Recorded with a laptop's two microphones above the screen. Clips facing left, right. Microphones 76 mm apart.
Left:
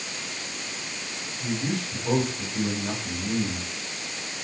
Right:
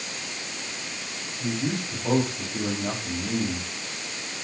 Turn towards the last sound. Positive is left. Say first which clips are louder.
# right 1 dB
turn(degrees=-35)  # may be behind; listen again after turning